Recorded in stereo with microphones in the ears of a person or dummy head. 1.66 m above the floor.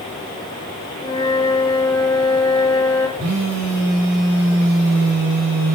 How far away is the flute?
About 7.5 m.